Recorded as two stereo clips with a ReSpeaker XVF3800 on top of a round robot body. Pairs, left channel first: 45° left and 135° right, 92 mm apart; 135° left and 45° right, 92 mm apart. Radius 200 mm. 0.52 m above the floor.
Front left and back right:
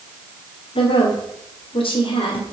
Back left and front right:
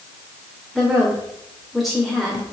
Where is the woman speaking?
45° left, 2 m.